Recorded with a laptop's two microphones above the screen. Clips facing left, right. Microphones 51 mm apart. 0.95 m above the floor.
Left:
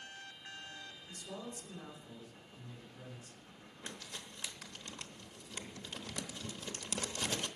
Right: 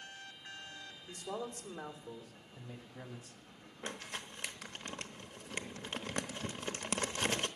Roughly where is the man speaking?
Right.